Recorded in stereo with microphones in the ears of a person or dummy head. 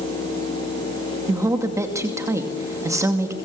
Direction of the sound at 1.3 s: 15° right (ahead or behind).